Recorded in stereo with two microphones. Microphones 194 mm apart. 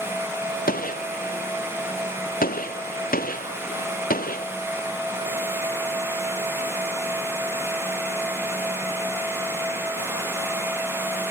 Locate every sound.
0.7 s a gunshot: 45° left (ahead or behind)